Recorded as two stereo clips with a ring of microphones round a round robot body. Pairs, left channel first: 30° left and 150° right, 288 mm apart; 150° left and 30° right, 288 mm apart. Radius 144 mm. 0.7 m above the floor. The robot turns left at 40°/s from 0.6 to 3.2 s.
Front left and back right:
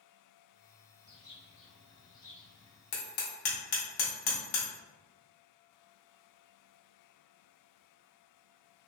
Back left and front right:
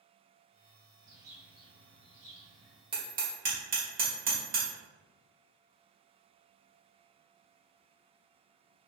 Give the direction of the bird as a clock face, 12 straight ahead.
11 o'clock.